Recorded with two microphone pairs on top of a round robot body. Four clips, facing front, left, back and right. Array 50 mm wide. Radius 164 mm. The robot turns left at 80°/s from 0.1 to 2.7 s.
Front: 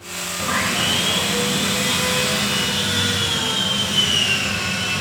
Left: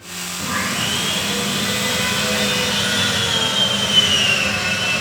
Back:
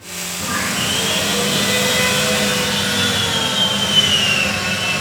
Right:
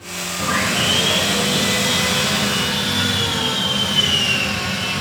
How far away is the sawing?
About 1.5 m.